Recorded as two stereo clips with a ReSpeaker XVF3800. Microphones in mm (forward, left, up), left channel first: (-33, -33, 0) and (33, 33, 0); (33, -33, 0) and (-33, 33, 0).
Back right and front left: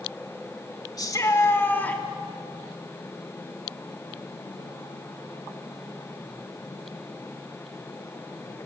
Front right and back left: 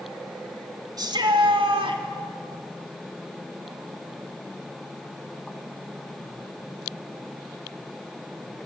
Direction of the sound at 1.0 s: Straight behind.